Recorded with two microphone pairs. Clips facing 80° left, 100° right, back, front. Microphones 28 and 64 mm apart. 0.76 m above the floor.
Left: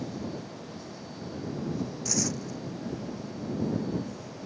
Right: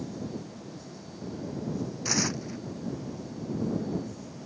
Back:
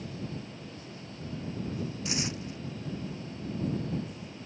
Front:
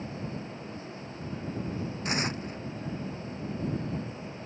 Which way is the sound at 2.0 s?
45° right.